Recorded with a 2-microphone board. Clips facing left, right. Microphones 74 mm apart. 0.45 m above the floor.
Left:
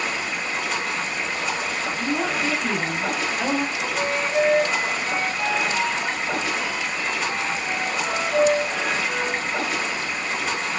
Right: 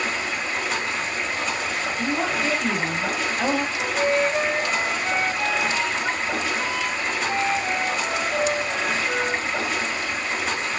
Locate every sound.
0.0 s running water: centre (ahead or behind), 0.9 m
2.0 s a woman speaking: 5° right (ahead or behind), 0.7 m
3.8 s a flute: 25° right (ahead or behind), 0.7 m